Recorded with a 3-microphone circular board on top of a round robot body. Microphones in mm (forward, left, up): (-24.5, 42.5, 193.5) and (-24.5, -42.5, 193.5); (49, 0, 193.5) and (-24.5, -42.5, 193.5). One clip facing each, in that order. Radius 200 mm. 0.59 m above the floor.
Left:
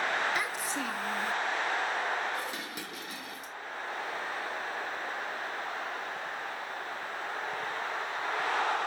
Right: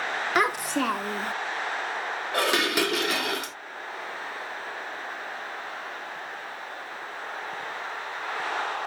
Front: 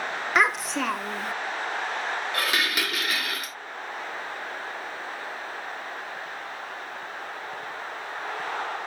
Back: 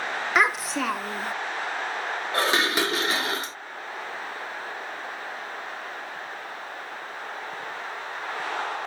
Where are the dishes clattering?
90° right.